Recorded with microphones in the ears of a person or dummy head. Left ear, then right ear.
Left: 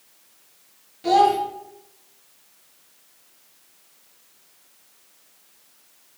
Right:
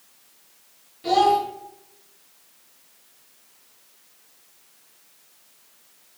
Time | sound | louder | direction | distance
1.0 | a child speaking | left 1 dB | 10° left (ahead or behind) | 1.0 m